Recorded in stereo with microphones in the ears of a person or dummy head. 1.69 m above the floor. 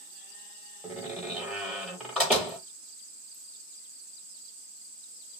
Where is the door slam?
5° left (ahead or behind), 0.6 m.